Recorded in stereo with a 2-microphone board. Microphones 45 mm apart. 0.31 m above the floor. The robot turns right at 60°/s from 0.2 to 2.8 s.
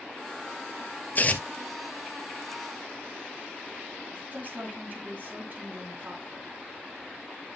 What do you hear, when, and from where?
1.1 s tearing paper: 40° left (ahead or behind), 1.2 m; by 1.4 s 25° left (ahead or behind), 1.2 m
4.1 s a woman speaking: 40° right (ahead or behind), 3 m